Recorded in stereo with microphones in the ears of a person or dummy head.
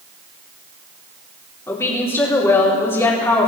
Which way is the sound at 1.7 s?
15° left (ahead or behind).